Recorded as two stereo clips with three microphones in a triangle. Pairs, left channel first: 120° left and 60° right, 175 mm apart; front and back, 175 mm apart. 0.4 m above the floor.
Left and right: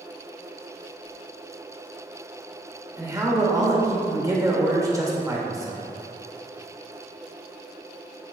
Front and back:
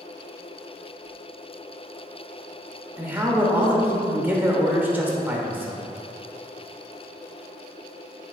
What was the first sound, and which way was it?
A man speaking, 110° right.